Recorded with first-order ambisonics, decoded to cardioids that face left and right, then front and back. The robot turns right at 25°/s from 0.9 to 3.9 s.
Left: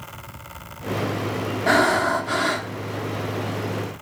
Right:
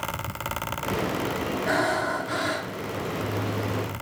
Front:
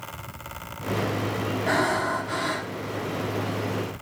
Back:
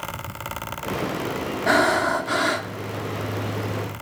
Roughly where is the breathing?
Behind left.